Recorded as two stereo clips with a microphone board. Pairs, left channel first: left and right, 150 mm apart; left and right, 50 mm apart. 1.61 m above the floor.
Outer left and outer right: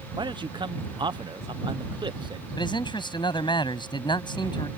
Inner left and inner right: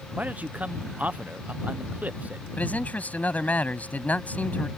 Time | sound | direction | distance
0.2 | a man speaking | 30° right (ahead or behind) | ?
2.6 | a man speaking | 30° left (ahead or behind) | ?